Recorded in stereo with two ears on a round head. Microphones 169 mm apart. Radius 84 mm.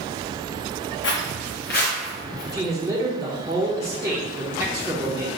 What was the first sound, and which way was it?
Footsteps, 70° left (ahead or behind).